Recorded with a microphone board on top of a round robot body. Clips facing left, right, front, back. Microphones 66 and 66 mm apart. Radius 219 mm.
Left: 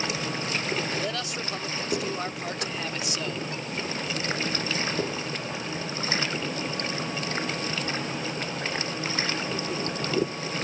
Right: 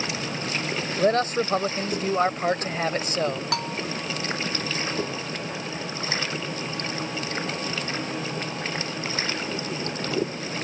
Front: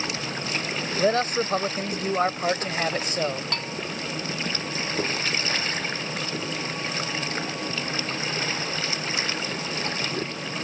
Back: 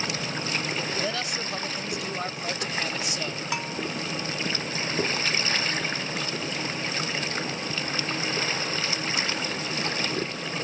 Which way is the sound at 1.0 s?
45° right.